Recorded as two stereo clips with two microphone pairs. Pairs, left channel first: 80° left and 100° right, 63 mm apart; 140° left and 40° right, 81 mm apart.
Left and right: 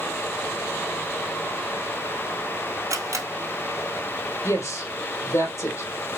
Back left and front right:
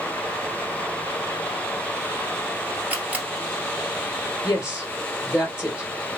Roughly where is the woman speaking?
Left.